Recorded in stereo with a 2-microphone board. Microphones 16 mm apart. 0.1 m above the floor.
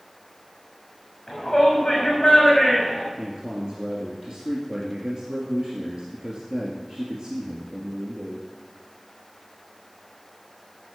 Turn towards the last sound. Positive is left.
turn(degrees=-45)  # may be behind; listen again after turning